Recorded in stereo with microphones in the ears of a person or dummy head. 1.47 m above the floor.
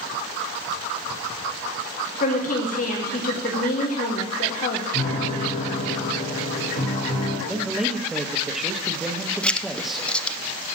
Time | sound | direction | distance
2.2 | a woman speaking | 55° left (ahead or behind) | 1.4 m
4.9 | a piano | 45° left (ahead or behind) | 6 m
7.5 | a man speaking | 5° right (ahead or behind) | 1.1 m
9.4 | writing | 5° left (ahead or behind) | 0.6 m